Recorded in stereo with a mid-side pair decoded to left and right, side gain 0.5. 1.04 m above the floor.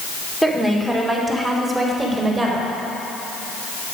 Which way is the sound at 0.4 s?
5° left.